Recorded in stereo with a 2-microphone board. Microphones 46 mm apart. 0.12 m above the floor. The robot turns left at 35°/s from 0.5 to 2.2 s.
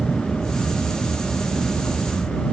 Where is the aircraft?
40° right (ahead or behind); by 2.5 s 65° right (ahead or behind).